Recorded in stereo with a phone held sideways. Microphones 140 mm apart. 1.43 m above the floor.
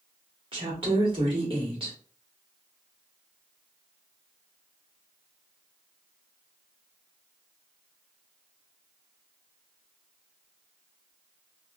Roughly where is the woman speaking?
Right.